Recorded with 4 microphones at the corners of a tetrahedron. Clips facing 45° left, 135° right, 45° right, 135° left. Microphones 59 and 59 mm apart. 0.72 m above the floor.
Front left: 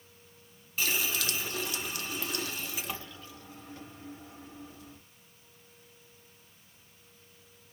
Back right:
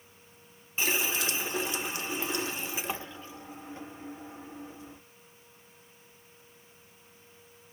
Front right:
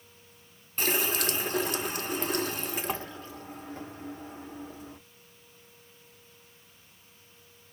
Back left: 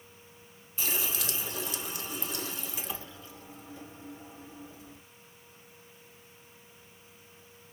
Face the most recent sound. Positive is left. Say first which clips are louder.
# back right 2 dB, front right 6 dB
turn(degrees=-70)